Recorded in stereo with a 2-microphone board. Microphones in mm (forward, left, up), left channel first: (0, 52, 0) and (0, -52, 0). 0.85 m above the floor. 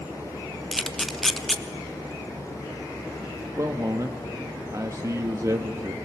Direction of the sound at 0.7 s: 5° left (ahead or behind).